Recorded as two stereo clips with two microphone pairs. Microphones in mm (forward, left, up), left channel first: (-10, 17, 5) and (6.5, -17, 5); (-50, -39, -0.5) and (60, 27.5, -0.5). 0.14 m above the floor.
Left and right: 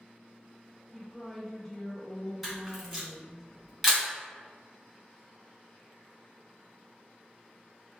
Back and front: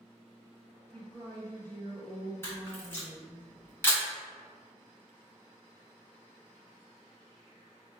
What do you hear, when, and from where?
0.9 s a woman speaking: 155° left, 1.5 m
2.4 s a camera shutter: 135° right, 1.6 m